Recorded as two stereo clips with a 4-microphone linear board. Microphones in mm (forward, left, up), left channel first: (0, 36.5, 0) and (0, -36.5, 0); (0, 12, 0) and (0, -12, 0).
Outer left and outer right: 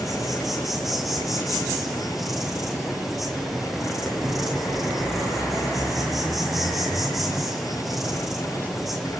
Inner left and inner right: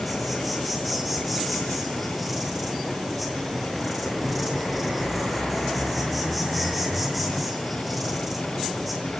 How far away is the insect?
About 8 m.